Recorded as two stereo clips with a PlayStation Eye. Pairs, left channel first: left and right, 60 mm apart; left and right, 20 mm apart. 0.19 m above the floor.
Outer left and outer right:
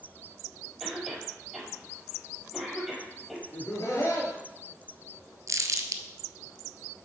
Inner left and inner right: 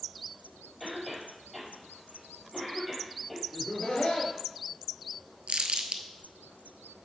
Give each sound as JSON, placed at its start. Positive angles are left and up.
{"t": 0.8, "sound": "a cough", "side_deg": -5, "distance_m": 5.0}
{"t": 3.5, "sound": "laughter", "side_deg": 60, "distance_m": 3.0}
{"t": 5.5, "sound": "crumpling", "side_deg": -65, "distance_m": 0.7}